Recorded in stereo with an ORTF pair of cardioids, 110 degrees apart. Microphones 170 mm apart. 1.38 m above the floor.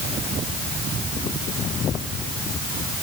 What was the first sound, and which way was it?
Only background noise.